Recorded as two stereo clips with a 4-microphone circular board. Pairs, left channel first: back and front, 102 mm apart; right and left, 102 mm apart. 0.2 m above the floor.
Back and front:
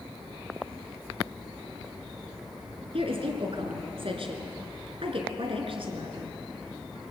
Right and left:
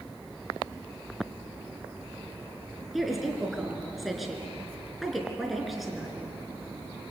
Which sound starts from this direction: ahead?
A woman speaking, at 2.9 s.